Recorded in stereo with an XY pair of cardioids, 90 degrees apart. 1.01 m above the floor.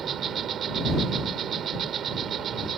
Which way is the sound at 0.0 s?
65° right.